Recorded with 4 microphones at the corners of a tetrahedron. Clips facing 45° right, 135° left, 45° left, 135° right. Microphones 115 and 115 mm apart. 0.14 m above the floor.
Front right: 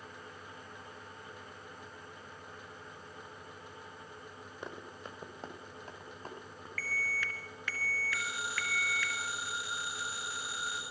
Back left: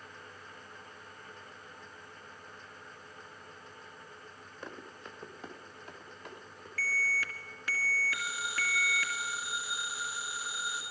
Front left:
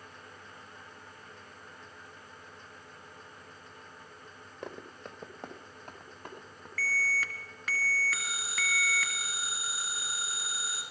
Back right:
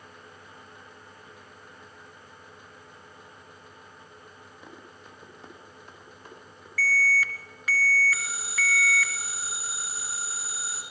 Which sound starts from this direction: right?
A phone ringing, at 8.1 s.